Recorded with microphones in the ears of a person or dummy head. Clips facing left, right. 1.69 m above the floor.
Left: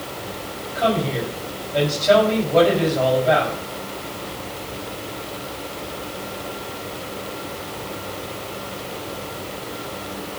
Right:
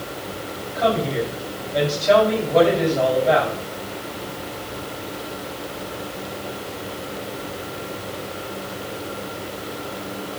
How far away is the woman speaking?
About 4 m.